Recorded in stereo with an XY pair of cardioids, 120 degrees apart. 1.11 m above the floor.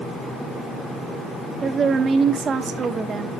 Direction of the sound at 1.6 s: 35° right.